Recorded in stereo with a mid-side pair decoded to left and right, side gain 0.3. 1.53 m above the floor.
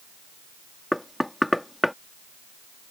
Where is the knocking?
10° left.